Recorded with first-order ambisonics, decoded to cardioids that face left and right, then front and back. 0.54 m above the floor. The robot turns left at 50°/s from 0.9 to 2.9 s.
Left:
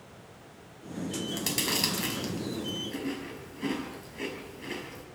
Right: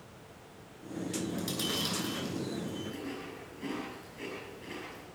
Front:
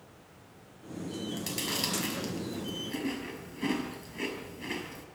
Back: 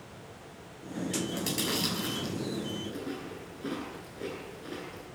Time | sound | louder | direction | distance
1.3 | chewing | left 6 dB, even | 105° left | 6 m